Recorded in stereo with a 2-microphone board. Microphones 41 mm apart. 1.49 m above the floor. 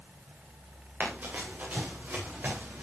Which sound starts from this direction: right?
Running footsteps, at 1.0 s.